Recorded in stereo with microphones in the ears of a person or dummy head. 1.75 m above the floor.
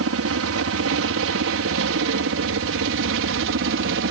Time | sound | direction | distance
0.0 | a helicopter | 70° right (ahead or behind) | ?